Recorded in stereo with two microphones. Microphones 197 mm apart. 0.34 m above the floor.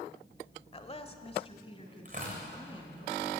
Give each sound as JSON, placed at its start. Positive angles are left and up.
{"t": 0.7, "sound": "a woman speaking", "side_deg": 30, "distance_m": 1.2}
{"t": 2.0, "sound": "tearing paper", "side_deg": -40, "distance_m": 7.0}